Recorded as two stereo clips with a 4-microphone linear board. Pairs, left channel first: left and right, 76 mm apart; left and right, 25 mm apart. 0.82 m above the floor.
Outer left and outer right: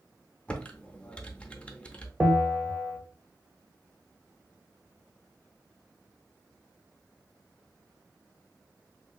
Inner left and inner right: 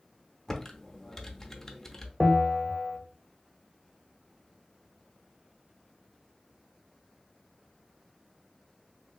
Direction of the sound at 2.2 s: 5° right (ahead or behind).